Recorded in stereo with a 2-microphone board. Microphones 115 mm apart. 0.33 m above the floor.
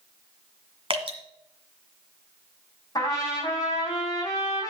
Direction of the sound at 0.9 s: 55° right (ahead or behind).